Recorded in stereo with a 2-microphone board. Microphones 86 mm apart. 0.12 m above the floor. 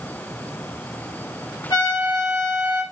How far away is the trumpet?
About 2.5 m.